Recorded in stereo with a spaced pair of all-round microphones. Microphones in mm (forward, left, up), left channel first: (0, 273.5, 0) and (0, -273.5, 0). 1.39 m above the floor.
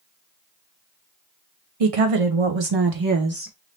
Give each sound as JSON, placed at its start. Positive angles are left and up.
{"t": 1.8, "sound": "a woman speaking", "side_deg": -85, "distance_m": 0.9}